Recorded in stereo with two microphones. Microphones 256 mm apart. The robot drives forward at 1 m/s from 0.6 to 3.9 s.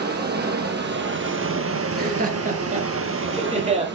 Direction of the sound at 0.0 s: 40° right (ahead or behind).